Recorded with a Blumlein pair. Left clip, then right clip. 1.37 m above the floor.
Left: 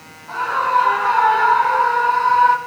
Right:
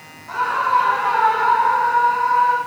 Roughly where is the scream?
Ahead.